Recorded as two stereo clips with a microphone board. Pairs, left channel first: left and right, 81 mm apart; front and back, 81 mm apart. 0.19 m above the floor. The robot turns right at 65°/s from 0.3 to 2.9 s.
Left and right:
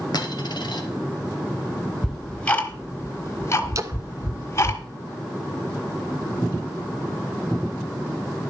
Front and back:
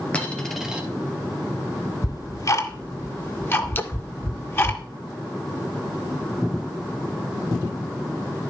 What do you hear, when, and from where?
0.1 s a dropped coin: 75° left, 2.0 m; by 0.8 s 110° left, 2.0 m
2.0 s ticking: 5° right, 2 m; by 4.8 s 50° left, 2 m
3.8 s a splash: 55° right, 0.8 m